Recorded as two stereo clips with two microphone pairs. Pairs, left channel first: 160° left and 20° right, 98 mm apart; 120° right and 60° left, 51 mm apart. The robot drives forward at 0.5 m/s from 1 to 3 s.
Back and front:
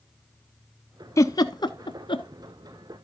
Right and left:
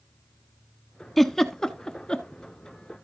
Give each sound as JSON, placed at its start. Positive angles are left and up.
{"t": 1.2, "sound": "a giggle", "azimuth_deg": 155, "distance_m": 0.6}